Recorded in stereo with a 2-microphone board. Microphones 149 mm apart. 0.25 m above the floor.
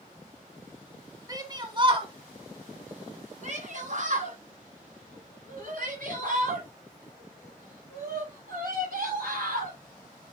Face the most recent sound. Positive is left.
turn(degrees=-80)